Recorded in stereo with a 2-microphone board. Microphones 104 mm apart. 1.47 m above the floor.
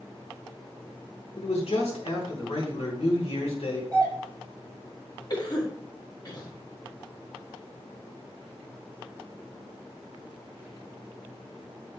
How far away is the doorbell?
About 3 m.